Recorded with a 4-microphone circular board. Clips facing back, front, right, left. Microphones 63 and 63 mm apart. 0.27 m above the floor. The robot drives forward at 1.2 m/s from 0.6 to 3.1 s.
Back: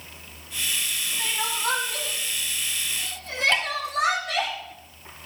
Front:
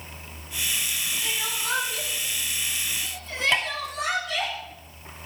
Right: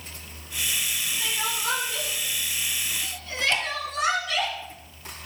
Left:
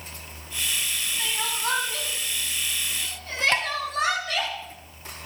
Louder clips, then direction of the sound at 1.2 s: Back 6 dB, left 1 dB; 135° left.